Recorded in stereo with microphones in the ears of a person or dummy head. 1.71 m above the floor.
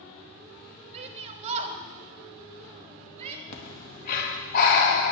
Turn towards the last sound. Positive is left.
turn(degrees=60)  # may be behind; listen again after turning